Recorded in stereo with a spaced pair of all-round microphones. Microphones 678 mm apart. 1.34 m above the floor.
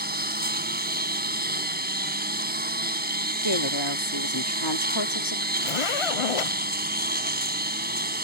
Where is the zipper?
50° left (ahead or behind).